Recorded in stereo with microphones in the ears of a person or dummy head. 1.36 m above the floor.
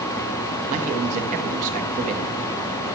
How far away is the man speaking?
About 1.5 m.